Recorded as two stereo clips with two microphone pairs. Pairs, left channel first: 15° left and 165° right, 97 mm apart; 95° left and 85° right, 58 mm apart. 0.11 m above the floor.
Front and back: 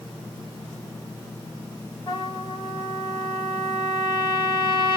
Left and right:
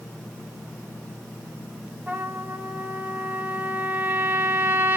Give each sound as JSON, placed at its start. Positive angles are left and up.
{"t": 2.1, "sound": "a trumpet", "azimuth_deg": -25, "distance_m": 2.5}